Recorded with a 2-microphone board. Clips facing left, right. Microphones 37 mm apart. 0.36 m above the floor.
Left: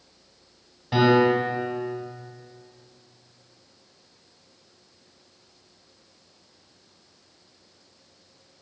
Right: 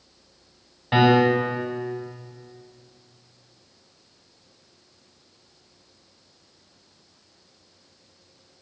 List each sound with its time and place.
0.9 s a piano: 35° right (ahead or behind), 2 m